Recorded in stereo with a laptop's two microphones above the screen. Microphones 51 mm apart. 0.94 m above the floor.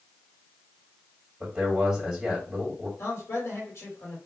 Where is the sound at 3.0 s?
70° left (ahead or behind), 2.5 m.